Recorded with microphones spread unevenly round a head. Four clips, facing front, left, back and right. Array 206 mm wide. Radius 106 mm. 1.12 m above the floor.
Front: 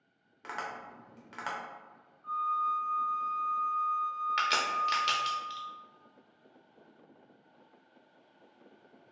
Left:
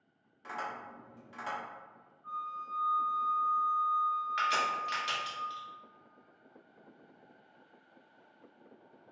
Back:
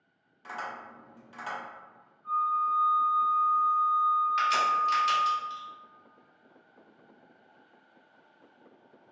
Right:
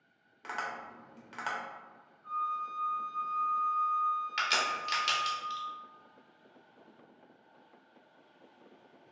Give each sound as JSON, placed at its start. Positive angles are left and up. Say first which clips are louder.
{"t": 0.4, "sound": "tapping", "louder": "right 1 dB, back 1 dB", "azimuth_deg": -35, "distance_m": 0.7}
{"t": 2.2, "sound": "a flute", "louder": "right 5 dB, back 4 dB", "azimuth_deg": -15, "distance_m": 0.9}
{"t": 4.4, "sound": "a crack", "louder": "left 2 dB, back 5 dB", "azimuth_deg": -15, "distance_m": 0.8}